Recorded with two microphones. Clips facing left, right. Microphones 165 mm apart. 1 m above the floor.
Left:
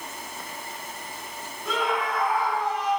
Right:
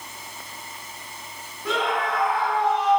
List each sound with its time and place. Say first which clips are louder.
1.6 s a scream: right 2 dB; 70° right (ahead or behind), 5.5 m